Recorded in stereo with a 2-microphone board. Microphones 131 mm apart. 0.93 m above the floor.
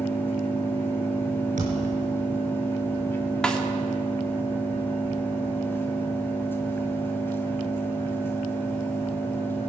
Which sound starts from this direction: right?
A thud, at 1.6 s.